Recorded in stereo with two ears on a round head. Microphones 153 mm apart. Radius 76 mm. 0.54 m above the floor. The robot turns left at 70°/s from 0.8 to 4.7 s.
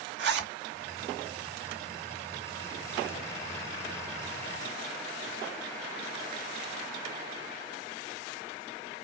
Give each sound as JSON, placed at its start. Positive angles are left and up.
{"t": 0.2, "sound": "a zipper", "side_deg": -70, "distance_m": 0.9}